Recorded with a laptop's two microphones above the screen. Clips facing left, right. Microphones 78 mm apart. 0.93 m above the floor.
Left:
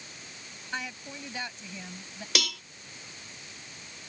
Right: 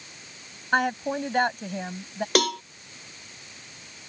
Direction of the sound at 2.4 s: 50° right (ahead or behind).